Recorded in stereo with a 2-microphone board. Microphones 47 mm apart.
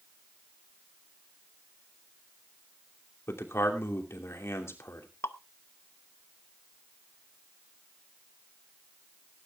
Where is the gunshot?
No gunshot in this recording.